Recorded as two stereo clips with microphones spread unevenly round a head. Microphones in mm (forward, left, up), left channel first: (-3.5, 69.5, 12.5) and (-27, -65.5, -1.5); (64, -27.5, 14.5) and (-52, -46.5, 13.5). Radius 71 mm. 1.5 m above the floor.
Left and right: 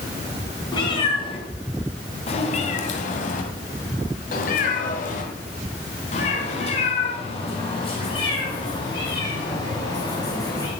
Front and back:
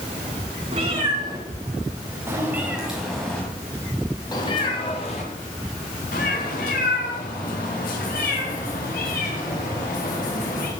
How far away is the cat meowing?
About 3.5 m.